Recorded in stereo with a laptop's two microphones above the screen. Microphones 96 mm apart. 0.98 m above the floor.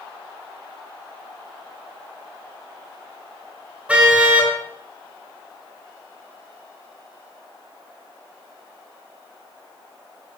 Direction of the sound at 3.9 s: 10° right (ahead or behind).